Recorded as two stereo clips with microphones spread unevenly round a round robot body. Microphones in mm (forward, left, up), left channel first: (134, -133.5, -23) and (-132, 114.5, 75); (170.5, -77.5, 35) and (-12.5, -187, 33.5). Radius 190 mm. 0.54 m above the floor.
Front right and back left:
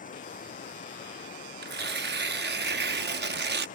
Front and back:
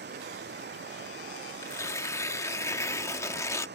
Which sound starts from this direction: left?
Tearing paper, at 1.6 s.